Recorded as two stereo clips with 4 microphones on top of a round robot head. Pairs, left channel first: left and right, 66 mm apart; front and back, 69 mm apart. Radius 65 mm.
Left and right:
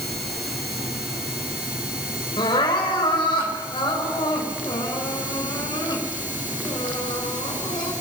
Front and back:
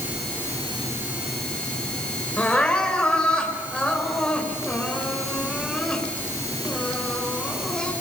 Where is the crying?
70° left, 5.5 m.